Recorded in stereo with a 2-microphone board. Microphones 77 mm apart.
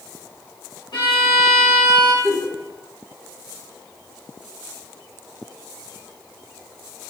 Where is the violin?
90° left, 1.5 m.